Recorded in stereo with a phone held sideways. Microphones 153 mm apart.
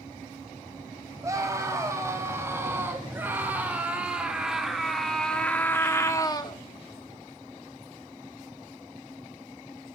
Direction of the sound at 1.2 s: 20° right (ahead or behind).